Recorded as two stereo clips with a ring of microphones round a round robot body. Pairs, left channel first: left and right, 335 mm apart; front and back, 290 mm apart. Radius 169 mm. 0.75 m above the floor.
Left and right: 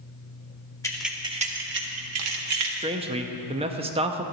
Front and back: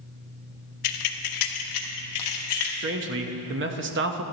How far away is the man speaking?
About 0.8 m.